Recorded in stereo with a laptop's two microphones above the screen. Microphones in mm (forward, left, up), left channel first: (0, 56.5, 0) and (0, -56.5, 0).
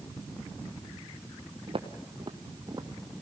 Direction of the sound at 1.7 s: 55° right (ahead or behind).